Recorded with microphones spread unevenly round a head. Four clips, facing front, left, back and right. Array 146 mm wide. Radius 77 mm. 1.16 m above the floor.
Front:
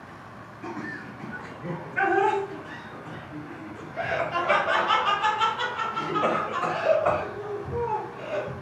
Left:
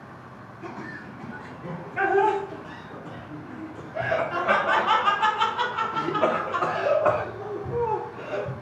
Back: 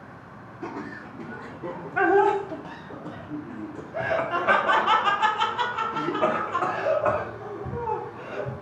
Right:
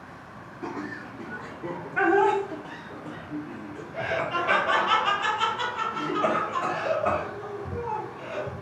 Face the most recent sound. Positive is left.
turn(degrees=110)